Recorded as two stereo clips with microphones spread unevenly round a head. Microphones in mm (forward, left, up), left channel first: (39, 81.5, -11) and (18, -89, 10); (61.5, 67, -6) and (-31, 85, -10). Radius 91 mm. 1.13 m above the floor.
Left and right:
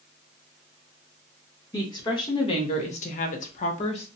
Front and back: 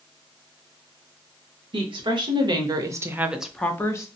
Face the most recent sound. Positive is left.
turn(degrees=40)